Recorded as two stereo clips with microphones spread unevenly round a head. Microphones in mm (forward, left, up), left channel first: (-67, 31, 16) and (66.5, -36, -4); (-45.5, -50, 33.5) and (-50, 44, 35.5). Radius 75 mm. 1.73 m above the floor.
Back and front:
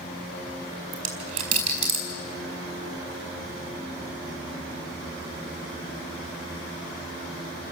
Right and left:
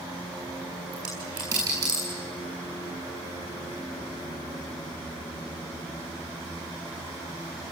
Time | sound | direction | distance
0.9 | a dropped coin | 25° left | 4 m